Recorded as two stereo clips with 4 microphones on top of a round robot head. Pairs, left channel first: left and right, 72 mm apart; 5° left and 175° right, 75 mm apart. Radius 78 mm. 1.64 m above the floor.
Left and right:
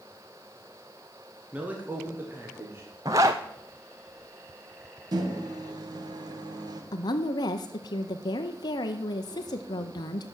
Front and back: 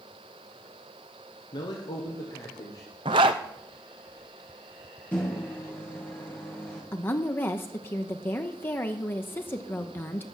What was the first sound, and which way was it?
A man speaking, 20° right.